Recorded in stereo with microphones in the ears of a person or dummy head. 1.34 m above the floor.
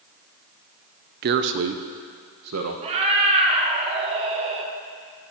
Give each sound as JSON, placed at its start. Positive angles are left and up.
{"t": 1.2, "sound": "a man speaking", "side_deg": -50, "distance_m": 0.6}
{"t": 2.8, "sound": "a cat meowing", "side_deg": -30, "distance_m": 1.2}